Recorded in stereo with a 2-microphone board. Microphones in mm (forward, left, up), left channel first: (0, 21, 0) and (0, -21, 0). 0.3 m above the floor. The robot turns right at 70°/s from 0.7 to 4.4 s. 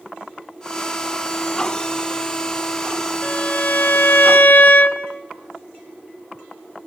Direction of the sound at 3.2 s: 40° left.